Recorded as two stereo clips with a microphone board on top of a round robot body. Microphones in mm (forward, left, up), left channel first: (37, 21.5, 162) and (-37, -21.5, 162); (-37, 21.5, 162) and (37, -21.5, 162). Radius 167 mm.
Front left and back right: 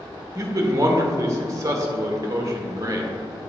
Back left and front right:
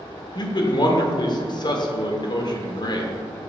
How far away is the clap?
I don't hear a clap.